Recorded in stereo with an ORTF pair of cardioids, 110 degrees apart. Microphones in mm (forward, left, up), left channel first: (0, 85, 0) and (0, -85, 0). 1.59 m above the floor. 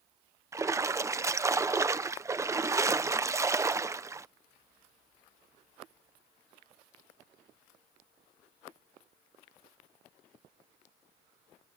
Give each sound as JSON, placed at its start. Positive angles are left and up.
{"t": 0.5, "sound": "a splash", "azimuth_deg": -20}